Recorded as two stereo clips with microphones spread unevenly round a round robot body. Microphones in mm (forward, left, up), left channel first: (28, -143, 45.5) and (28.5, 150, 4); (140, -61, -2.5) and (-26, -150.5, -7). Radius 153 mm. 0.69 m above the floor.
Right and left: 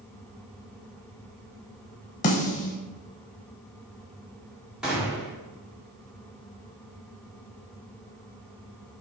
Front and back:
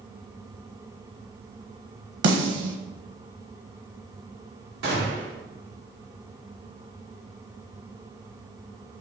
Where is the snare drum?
150° right, 0.9 m.